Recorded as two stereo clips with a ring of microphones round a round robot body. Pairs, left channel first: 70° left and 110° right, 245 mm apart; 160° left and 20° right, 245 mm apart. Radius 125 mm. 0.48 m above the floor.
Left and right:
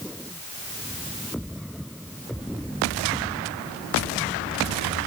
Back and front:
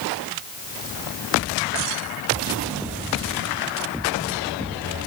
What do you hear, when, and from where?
Only background noise.